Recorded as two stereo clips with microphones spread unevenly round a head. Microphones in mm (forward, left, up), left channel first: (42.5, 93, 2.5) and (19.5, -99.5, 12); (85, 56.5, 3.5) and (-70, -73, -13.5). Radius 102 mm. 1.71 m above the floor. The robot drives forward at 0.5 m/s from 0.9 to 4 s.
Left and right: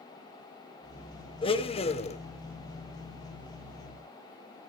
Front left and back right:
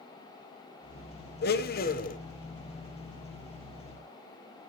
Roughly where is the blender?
Ahead left.